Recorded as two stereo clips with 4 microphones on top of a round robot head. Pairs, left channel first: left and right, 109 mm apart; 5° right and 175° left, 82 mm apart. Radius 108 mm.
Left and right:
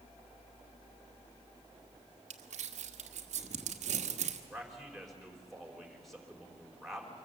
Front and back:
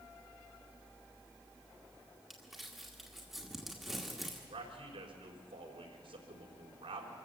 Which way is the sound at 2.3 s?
100° right.